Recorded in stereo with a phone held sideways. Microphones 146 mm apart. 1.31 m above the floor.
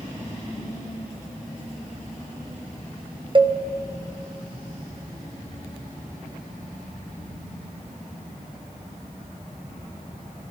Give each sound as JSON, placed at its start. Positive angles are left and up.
{"t": 3.4, "sound": "a cowbell", "side_deg": -35, "distance_m": 0.7}